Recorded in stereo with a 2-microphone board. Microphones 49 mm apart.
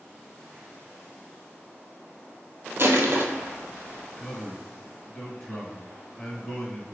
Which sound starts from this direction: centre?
A man speaking, at 4.2 s.